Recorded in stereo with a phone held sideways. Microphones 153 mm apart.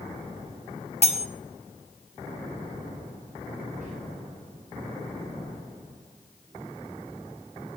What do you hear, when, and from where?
1.0 s cutlery clinking: 45° left (ahead or behind), 0.6 m
3.8 s whispering: 50° right (ahead or behind), 5 m